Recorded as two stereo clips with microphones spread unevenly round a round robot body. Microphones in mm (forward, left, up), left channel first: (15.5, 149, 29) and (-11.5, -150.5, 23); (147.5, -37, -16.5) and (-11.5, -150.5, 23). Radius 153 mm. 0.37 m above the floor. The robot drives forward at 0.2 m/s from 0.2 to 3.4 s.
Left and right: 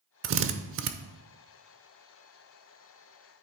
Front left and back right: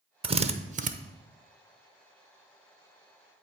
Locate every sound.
0.2 s a drill: 80° right, 0.6 m; by 0.9 s 100° right, 0.6 m